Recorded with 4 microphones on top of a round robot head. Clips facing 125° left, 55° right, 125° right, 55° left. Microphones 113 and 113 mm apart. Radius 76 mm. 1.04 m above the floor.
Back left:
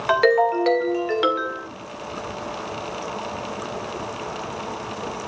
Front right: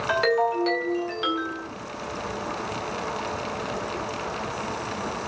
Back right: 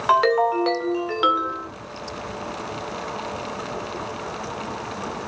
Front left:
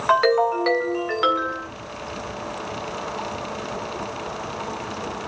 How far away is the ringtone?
About 2 m.